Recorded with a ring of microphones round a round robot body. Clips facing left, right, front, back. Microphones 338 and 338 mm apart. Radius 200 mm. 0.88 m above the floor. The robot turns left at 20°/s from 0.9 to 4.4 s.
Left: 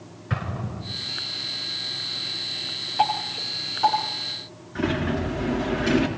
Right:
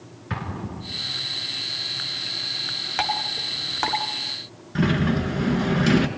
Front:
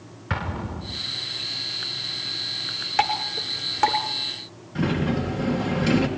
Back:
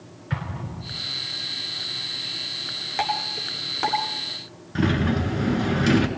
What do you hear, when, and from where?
0.3 s an explosion: 10° right, 2 m; by 1.0 s 15° right, 2 m
3.0 s dripping: 65° right, 3 m; by 4.0 s 85° right, 3 m
4.8 s a sliding door: 130° right, 4 m